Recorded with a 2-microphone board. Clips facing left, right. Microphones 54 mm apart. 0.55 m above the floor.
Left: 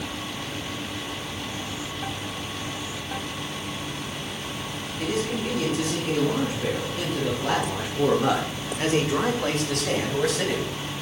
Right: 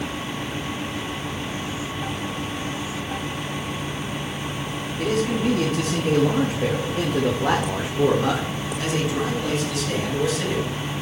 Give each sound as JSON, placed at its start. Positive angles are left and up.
{"t": 5.0, "sound": "a man speaking", "side_deg": -75, "distance_m": 4.0}